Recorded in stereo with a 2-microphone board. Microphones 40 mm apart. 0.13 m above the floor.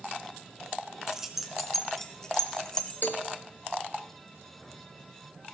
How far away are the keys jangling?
About 0.9 m.